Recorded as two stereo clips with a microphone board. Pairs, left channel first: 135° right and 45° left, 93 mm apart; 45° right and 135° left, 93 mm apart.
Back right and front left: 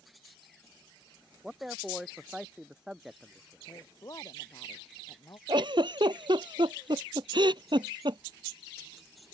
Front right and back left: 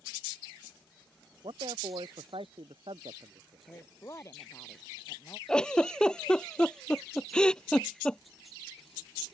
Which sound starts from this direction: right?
A woman speaking, at 3.7 s.